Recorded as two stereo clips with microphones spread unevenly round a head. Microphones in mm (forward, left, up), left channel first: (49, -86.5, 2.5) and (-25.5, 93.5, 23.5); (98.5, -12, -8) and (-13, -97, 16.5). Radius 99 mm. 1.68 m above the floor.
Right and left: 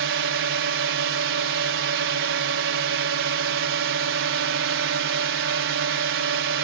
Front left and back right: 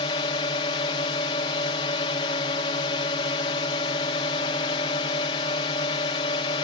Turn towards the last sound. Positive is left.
turn(degrees=100)